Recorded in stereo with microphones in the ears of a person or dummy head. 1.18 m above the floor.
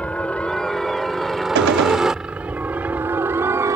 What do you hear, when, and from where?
0.0 s a helicopter: 5° left (ahead or behind); by 3.8 s 15° right (ahead or behind)
1.6 s a gunshot: 65° right (ahead or behind)